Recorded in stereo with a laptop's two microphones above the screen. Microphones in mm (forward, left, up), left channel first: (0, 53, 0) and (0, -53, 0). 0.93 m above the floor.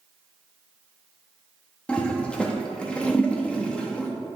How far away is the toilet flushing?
About 1.2 m.